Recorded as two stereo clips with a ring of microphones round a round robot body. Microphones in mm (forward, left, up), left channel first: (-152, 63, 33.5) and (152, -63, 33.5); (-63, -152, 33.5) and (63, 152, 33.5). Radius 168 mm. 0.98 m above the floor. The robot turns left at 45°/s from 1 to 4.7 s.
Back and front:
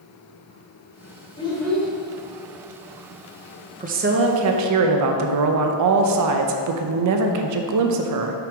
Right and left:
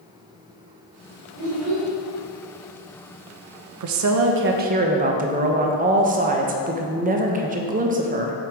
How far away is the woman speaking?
About 0.6 m.